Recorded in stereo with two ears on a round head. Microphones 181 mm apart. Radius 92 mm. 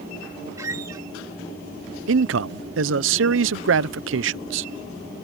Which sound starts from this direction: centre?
A squeak, at 0.6 s.